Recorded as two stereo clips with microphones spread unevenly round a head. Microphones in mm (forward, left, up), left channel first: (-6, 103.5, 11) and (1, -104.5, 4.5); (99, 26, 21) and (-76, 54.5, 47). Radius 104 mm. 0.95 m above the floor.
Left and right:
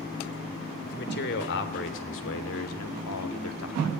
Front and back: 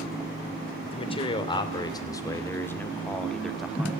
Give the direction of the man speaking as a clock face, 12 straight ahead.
10 o'clock.